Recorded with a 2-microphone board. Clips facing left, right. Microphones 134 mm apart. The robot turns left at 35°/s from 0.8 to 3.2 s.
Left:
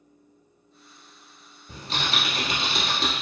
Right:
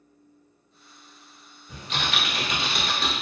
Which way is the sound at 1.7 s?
85° left.